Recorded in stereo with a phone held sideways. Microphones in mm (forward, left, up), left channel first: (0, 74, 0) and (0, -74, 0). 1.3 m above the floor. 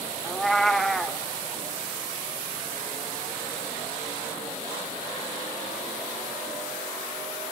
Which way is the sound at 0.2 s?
Centre (ahead or behind).